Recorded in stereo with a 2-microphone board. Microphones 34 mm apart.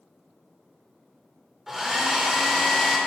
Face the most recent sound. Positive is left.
turn(degrees=-5)  # may be behind; listen again after turning